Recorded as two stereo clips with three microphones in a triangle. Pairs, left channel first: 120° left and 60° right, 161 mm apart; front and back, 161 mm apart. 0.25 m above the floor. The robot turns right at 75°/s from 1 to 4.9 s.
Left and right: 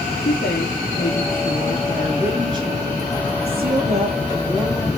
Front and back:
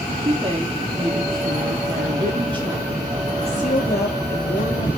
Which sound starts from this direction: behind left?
A woman speaking, at 0.2 s.